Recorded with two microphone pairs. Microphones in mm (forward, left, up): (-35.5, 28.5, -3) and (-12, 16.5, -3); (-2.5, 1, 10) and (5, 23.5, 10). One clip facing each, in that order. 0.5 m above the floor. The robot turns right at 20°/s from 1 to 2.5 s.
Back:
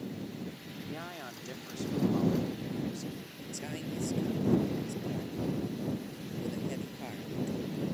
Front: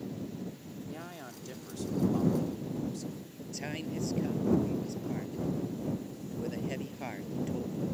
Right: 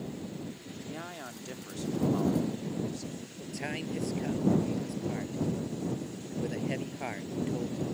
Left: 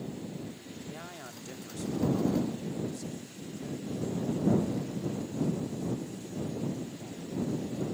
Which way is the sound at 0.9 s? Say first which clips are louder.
Back 4 dB, right 4 dB; 175° right.